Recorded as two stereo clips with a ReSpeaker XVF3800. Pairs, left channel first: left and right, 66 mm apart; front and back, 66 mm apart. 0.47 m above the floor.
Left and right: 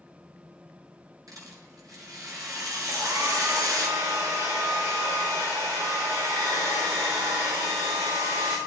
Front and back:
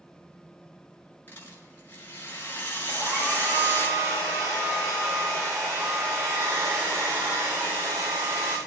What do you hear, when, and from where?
1.3 s a rattle: 60° right, 5.5 m
2.9 s a hair dryer: 120° right, 9 m